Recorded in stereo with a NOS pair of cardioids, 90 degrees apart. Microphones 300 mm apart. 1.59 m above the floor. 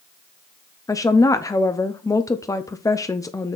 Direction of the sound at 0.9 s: 10° left.